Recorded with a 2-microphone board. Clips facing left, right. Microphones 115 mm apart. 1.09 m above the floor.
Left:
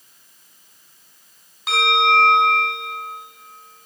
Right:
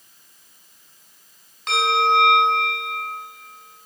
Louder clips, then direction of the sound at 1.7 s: Left 1 dB; 5° left (ahead or behind).